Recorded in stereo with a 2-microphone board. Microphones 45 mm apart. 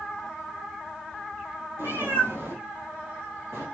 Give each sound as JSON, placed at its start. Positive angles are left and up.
{"t": 1.8, "sound": "a cat meowing", "side_deg": -75, "distance_m": 1.6}